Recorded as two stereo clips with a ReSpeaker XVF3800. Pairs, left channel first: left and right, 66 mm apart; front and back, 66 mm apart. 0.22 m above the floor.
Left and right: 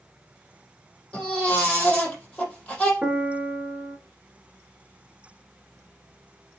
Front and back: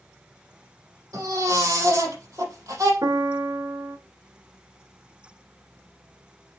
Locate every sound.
1.1 s a baby crying: 165° left, 5.5 m
3.0 s a piano: 165° right, 0.8 m